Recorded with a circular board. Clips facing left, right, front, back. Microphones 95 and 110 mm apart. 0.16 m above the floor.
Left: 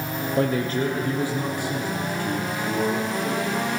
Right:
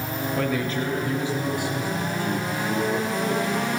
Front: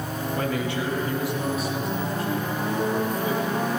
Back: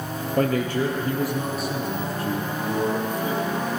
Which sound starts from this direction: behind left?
A man speaking, at 0.4 s.